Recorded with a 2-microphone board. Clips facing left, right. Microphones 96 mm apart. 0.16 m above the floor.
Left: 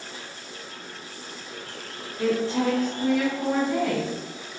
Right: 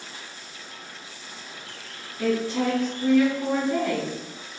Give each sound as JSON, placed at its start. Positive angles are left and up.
{"t": 2.2, "sound": "a woman speaking", "side_deg": 30, "distance_m": 1.7}